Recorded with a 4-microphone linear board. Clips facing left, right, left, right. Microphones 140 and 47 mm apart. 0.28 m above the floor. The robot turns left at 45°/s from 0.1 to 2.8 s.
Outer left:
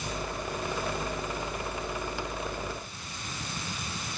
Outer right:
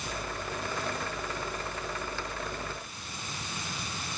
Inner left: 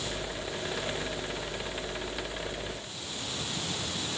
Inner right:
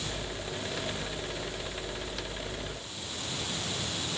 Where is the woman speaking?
I don't hear a woman speaking.